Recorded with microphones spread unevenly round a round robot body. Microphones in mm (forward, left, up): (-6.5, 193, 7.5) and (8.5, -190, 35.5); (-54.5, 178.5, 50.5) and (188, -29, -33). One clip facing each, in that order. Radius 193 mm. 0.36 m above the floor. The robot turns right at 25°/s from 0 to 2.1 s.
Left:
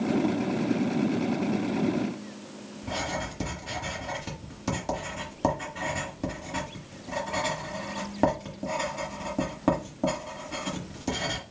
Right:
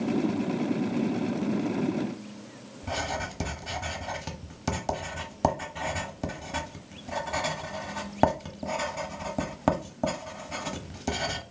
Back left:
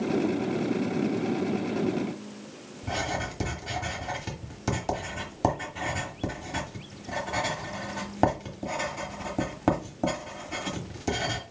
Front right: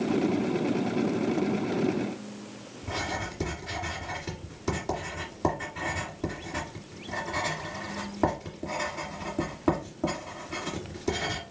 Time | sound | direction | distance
2.8 | writing | 160° right | 0.9 m